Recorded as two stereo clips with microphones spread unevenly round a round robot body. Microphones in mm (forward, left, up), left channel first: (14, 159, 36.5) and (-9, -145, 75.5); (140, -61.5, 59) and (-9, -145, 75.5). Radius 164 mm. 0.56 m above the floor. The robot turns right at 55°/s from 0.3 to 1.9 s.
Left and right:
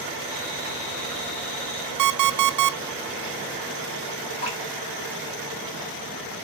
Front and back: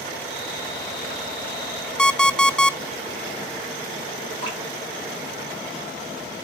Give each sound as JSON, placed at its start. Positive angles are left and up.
{"t": 2.0, "sound": "an alarm clock", "azimuth_deg": -55, "distance_m": 0.6}
{"t": 4.4, "sound": "dripping", "azimuth_deg": 40, "distance_m": 3.5}